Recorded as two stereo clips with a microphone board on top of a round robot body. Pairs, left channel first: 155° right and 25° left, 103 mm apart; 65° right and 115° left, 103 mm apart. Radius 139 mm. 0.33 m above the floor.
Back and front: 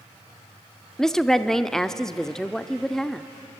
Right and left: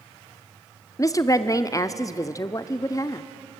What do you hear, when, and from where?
1.0 s a woman speaking: 75° right, 0.9 m